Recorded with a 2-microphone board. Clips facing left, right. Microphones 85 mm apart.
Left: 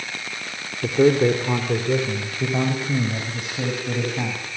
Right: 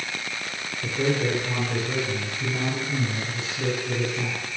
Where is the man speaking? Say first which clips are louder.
Left 9 dB; 55° left (ahead or behind), 3 m; by 4.4 s 65° left (ahead or behind), 7.5 m.